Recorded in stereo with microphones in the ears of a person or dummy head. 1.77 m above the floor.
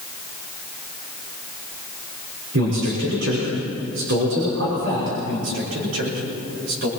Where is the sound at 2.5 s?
70° right (ahead or behind), 6 m.